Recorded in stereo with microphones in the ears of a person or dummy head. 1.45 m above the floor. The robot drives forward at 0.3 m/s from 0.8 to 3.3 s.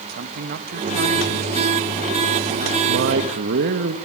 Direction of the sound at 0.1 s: 50° right (ahead or behind).